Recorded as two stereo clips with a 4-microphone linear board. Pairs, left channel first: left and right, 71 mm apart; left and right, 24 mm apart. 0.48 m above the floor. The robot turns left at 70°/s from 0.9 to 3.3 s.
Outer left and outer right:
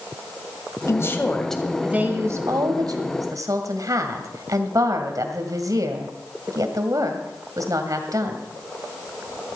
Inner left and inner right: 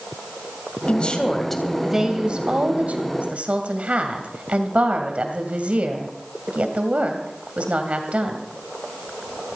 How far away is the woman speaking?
About 2 m.